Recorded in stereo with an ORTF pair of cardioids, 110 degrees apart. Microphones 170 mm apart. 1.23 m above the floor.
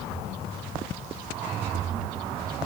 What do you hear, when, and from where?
Only background noise.